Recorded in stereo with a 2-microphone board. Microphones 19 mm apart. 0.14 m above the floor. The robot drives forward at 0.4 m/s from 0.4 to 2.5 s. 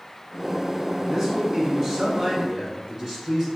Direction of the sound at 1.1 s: 25° right (ahead or behind).